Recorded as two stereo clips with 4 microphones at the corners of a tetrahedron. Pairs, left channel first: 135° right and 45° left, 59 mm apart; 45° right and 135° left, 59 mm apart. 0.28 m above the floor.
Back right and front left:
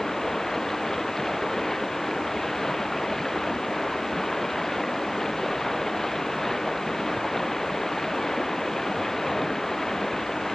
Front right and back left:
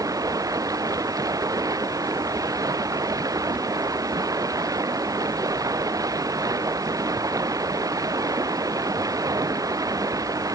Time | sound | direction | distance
0.0 | running water | 140° left | ?